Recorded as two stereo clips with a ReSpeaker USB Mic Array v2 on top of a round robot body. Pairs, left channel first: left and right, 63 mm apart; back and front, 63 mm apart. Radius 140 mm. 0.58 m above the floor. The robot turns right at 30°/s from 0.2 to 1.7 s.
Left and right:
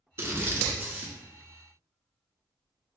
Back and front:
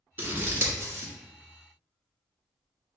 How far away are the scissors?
About 1.8 m.